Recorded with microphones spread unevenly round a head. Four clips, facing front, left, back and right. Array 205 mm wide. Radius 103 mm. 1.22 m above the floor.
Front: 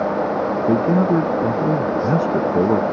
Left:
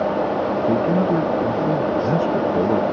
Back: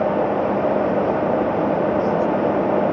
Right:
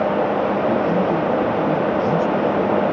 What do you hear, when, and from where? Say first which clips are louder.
0.7 s a man speaking: even, front 2 dB; 15° left